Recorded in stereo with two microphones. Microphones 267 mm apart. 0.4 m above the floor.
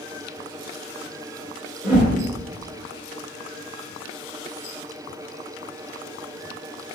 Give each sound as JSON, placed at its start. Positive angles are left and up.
{"t": 1.8, "sound": "a whoosh", "side_deg": -5, "distance_m": 1.1}